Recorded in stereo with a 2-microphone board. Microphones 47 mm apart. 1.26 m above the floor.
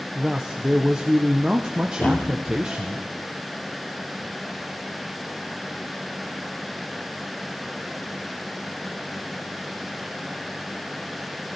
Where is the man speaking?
15° right (ahead or behind), 0.7 m.